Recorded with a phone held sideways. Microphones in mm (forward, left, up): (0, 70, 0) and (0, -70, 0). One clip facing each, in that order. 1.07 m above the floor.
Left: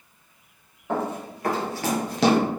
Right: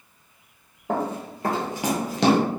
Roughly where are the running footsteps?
Right.